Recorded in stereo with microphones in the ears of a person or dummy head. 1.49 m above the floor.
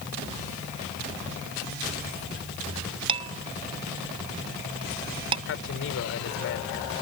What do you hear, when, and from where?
3.1 s dishes clattering: 30° right (ahead or behind)
5.5 s a man speaking: 55° left (ahead or behind)